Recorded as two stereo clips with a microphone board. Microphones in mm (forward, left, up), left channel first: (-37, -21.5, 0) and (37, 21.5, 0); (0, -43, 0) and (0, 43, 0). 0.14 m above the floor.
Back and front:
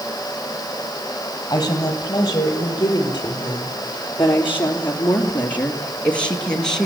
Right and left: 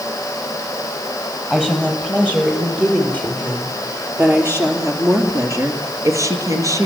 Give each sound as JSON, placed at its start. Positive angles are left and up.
{"t": 1.5, "sound": "a woman speaking", "azimuth_deg": 165, "distance_m": 4.5}